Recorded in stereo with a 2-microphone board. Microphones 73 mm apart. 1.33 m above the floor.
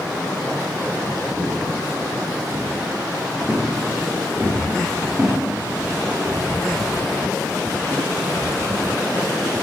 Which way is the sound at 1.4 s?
30° right (ahead or behind).